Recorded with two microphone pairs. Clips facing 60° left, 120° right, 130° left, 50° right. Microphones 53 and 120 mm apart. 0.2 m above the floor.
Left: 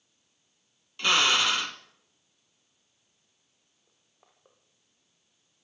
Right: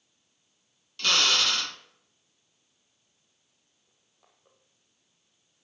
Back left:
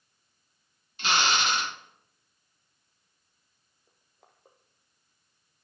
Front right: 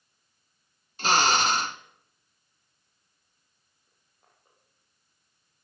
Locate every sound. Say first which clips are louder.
1.0 s a drill: left 2 dB, front right 4 dB; 10° right, 1.5 m
3.9 s crushing: left 1 dB, back left 5 dB; 125° left, 5.5 m